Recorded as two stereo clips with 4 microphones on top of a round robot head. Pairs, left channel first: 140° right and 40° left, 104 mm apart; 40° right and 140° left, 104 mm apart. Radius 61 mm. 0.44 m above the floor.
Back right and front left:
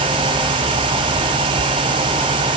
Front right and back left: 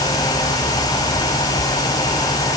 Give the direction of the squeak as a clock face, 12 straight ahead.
I don't hear a squeak.